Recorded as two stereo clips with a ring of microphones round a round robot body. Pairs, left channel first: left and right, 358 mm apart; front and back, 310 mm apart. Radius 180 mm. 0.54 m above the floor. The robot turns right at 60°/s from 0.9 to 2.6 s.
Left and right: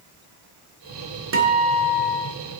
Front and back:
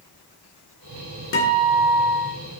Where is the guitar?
45° right, 1.9 m; by 2.4 s 15° left, 1.9 m.